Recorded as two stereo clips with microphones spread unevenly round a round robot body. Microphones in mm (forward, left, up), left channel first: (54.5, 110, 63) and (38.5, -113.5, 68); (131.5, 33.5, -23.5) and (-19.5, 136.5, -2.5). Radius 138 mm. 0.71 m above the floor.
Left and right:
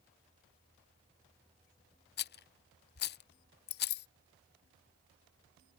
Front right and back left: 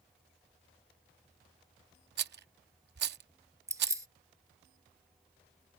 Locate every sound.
2.2 s a rattle: 125° left
3.7 s keys jangling: 70° left